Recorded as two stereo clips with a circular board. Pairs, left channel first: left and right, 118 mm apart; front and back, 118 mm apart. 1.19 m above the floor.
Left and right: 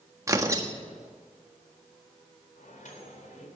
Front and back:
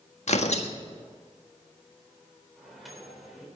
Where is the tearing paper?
25° right, 1.4 m.